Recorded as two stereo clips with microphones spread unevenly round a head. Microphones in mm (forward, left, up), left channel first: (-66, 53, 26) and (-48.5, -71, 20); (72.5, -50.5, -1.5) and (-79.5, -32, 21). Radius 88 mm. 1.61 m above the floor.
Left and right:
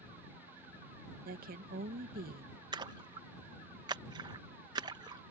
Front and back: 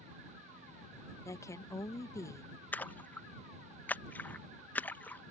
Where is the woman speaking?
80° right.